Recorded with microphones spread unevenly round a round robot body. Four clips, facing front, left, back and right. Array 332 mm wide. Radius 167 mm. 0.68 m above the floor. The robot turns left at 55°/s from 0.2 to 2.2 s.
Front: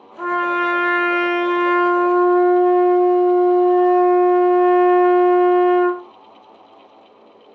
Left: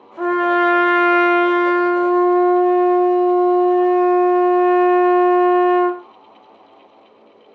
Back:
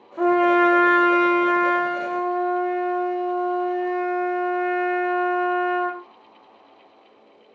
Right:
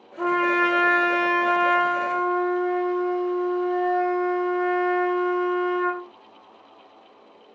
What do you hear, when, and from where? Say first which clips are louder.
0.2 s a trumpet: left 5 dB, back 3 dB; 160° left, 1.6 m; by 6.0 s 50° left, 1.6 m